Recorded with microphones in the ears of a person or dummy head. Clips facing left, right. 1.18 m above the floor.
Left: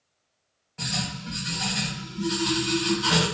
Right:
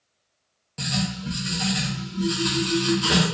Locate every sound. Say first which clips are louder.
0.8 s writing: right 5 dB; 40° right (ahead or behind), 1.0 m